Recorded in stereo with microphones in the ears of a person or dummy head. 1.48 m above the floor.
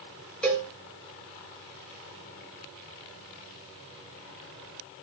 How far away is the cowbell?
About 4 m.